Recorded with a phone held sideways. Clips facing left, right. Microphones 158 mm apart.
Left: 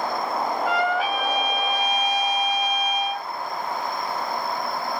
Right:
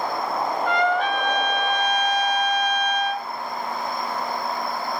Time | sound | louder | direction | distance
0.7 | a trumpet | right 3 dB | 5° left (ahead or behind) | 0.5 m